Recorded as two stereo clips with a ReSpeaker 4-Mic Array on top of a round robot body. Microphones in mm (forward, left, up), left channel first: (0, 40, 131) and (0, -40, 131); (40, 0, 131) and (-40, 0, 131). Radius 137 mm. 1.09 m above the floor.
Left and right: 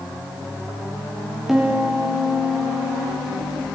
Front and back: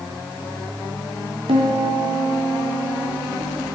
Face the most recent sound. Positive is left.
turn(degrees=-175)